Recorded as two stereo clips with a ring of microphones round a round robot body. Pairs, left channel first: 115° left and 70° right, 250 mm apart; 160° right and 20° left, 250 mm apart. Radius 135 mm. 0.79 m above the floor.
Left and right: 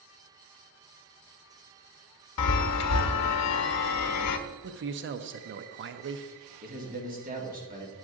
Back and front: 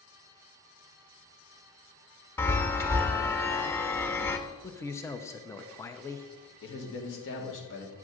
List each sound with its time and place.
2.4 s a chime: 120° left, 0.8 m
4.6 s a man speaking: 80° right, 0.5 m
6.6 s a man speaking: 125° right, 1.9 m